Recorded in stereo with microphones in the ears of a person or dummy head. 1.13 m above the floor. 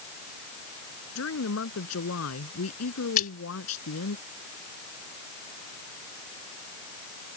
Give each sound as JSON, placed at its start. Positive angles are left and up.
{"t": 1.1, "sound": "a woman speaking", "side_deg": 85}
{"t": 3.2, "sound": "a splash", "side_deg": 45}